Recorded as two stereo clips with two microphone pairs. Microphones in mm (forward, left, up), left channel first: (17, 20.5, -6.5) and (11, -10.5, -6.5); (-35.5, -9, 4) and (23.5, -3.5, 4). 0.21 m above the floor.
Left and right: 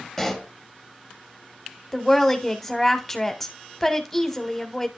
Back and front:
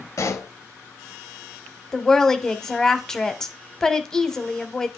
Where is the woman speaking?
130° left, 1.1 m.